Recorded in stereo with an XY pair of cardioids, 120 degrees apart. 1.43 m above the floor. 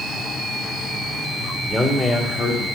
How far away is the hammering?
No hammering in this recording.